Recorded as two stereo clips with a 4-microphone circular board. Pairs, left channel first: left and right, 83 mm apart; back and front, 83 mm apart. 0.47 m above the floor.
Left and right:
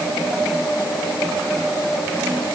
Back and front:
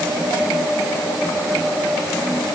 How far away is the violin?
No violin in this recording.